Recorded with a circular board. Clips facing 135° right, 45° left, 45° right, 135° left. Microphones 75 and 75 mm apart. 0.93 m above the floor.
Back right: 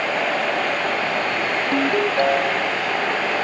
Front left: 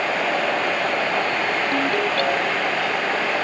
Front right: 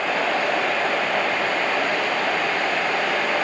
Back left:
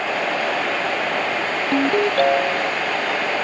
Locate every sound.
1.7 s a ringtone: 155° left